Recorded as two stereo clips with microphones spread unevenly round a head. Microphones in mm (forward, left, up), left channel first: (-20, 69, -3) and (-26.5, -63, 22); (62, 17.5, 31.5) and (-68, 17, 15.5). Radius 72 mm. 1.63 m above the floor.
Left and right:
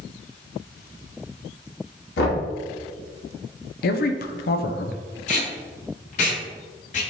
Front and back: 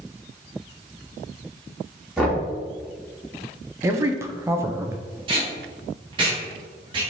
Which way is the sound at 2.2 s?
95° left.